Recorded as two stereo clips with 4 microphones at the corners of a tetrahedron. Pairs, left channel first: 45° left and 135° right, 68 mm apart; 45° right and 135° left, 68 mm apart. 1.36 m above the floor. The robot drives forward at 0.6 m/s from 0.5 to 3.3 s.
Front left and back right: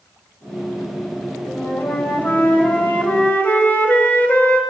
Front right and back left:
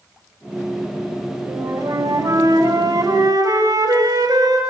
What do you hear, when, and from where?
1.5 s a flute: 105° left, 7.5 m; by 4.6 s 110° left, 8 m